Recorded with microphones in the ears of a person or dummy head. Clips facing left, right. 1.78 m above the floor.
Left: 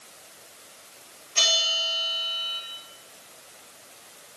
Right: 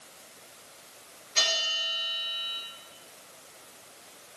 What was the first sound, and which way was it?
A bell, 65° right (ahead or behind).